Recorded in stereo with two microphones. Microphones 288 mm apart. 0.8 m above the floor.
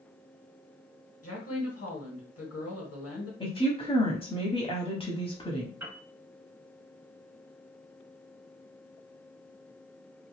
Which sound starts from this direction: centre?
A woman speaking, at 3.4 s.